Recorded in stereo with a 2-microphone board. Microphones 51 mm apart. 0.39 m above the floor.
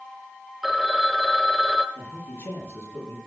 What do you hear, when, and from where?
0.6 s a phone ringing: 5° right (ahead or behind), 0.9 m
1.9 s a man speaking: 50° left (ahead or behind), 6.5 m